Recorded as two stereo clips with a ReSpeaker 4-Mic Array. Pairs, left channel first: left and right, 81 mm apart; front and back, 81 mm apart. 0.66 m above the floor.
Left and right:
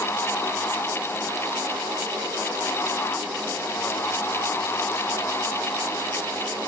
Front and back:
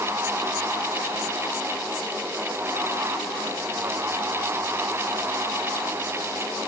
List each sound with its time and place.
Only background noise.